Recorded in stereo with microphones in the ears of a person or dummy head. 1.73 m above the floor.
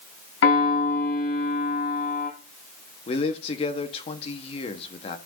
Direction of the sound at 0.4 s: 80° left.